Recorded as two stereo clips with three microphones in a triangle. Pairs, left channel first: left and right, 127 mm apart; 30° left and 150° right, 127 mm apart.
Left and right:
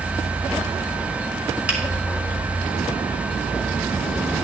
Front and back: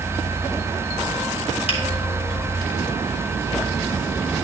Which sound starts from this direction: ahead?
A finger snap, at 1.7 s.